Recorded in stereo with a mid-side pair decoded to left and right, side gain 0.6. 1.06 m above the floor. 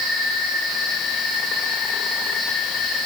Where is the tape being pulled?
No tape being pulled in this recording.